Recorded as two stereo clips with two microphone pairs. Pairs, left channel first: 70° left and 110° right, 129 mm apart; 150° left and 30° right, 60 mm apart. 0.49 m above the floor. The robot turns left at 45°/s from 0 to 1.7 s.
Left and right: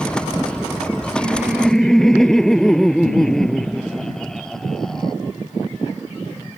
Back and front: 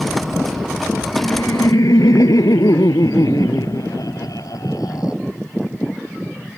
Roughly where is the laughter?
Behind.